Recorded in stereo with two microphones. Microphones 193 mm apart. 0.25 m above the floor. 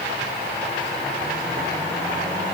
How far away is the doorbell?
I don't hear a doorbell.